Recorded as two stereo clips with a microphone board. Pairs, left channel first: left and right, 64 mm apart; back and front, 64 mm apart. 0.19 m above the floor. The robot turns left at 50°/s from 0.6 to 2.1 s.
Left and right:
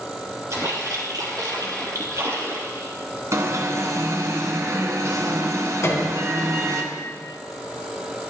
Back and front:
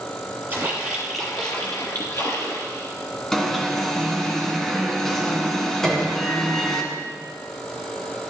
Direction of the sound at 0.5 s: 60° right.